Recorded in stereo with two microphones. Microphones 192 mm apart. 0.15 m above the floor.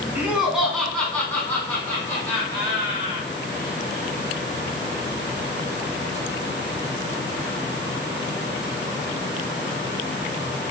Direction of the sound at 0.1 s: 5° right (ahead or behind).